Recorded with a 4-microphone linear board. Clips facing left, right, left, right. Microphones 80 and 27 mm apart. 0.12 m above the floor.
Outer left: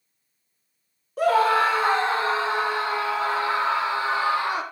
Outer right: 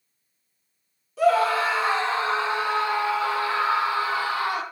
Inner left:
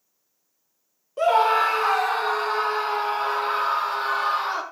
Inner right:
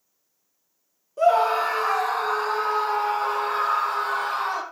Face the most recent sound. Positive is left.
turn(degrees=30)  # may be behind; listen again after turning